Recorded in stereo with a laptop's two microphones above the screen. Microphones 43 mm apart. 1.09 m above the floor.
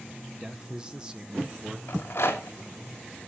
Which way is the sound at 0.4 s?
20° right (ahead or behind).